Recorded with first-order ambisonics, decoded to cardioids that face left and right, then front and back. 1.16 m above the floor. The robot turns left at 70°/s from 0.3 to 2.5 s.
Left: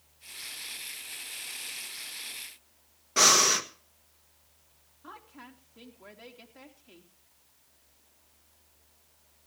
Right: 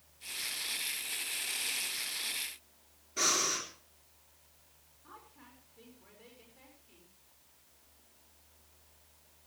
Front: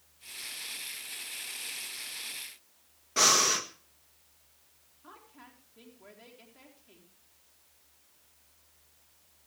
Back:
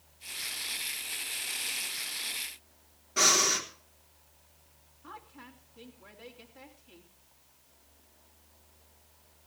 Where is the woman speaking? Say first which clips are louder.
Left 7 dB, back 5 dB; 90° left, 3.5 m.